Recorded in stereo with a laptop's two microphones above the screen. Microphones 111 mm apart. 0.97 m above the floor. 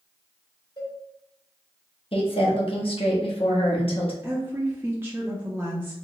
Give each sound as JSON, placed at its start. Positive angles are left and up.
{"t": 0.8, "sound": "a cowbell", "side_deg": 40, "distance_m": 1.7}
{"t": 2.1, "sound": "a woman speaking", "side_deg": 55, "distance_m": 0.9}
{"t": 4.2, "sound": "a woman speaking", "side_deg": -20, "distance_m": 0.9}